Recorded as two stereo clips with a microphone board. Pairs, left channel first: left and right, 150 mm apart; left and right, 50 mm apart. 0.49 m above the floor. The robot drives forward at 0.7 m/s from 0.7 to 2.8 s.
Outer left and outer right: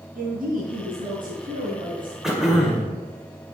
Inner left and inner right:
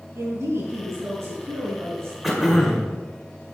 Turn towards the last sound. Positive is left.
turn(degrees=-5)  # may be behind; listen again after turning